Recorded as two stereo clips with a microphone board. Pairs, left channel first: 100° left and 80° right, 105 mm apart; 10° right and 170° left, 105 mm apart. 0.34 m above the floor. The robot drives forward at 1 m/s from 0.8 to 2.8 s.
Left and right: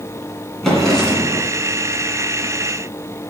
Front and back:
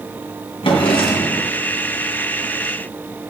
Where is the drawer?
15° left, 2 m; by 1.5 s 20° left, 1.5 m.